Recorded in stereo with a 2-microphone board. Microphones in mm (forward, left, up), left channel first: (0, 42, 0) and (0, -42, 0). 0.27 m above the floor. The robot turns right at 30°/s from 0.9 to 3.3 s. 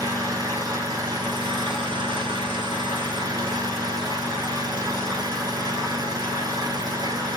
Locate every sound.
0.0 s an engine running: 130° right, 0.8 m; by 7.4 s 55° right, 0.8 m